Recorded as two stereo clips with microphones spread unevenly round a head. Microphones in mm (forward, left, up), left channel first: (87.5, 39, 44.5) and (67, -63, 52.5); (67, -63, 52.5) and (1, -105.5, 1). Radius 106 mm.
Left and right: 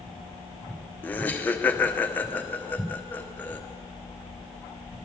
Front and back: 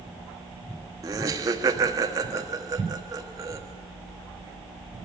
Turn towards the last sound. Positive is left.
turn(degrees=160)